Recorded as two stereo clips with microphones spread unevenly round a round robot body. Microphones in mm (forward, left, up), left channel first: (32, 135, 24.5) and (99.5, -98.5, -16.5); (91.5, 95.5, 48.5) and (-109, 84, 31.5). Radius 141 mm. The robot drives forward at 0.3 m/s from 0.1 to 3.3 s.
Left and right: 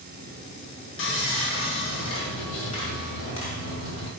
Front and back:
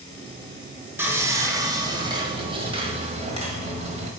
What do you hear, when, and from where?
1.0 s sawing: 115° left, 1.4 m; by 4.1 s 140° left, 1.8 m